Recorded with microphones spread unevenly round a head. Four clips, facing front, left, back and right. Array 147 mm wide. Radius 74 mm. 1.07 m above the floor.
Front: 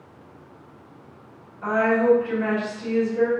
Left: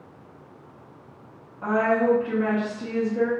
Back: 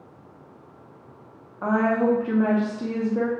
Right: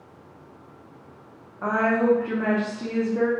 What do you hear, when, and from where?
1.6 s a woman speaking: 150° right, 0.8 m